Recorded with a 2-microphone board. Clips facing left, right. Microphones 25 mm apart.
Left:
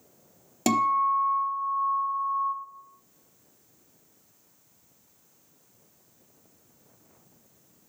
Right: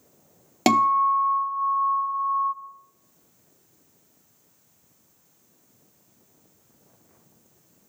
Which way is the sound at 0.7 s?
35° right (ahead or behind).